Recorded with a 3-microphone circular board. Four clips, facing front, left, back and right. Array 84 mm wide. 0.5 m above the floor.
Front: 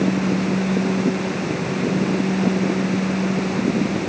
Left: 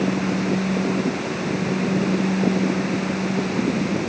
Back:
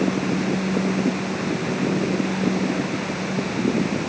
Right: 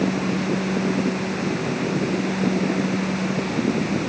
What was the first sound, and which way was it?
Only background noise.